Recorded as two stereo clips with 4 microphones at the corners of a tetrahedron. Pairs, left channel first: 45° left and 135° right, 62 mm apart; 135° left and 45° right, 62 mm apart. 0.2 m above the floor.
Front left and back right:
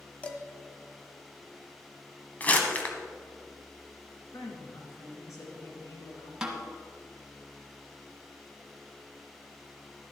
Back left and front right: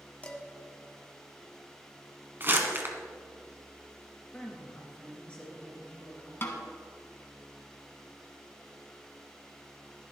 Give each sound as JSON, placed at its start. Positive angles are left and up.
{"t": 0.2, "sound": "dishes clattering", "azimuth_deg": 95, "distance_m": 0.9}
{"t": 2.4, "sound": "crumpling", "azimuth_deg": -10, "distance_m": 1.3}
{"t": 4.3, "sound": "a woman speaking", "azimuth_deg": 65, "distance_m": 3.0}
{"t": 6.4, "sound": "a snare drum", "azimuth_deg": 155, "distance_m": 1.3}